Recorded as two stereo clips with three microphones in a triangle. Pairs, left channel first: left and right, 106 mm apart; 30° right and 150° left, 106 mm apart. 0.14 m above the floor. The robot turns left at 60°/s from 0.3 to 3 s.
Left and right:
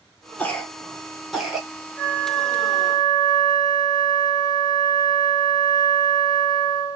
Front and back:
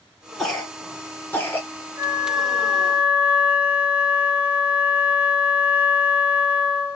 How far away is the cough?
About 1.1 m.